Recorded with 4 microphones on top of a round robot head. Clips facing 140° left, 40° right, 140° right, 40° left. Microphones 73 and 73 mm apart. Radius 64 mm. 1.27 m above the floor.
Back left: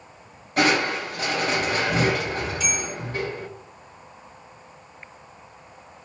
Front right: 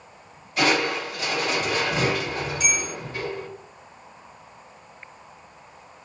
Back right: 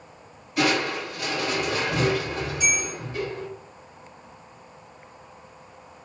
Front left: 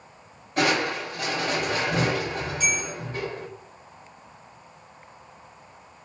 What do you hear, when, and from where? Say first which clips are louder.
0.6 s crushing: back left 1 dB, even; 90° left, 1.6 m
2.6 s a bell: front right 1 dB, back right 1 dB; 5° right, 1.7 m